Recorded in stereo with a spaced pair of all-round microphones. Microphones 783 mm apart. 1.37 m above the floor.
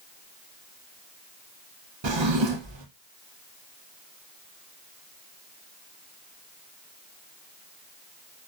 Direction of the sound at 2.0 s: 40° right (ahead or behind).